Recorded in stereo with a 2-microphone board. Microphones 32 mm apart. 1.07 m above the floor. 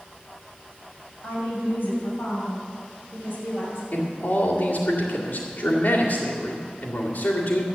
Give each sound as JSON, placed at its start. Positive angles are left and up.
{"t": 1.2, "sound": "a woman speaking", "side_deg": 80, "distance_m": 6.0}
{"t": 3.9, "sound": "a man speaking", "side_deg": 80, "distance_m": 2.0}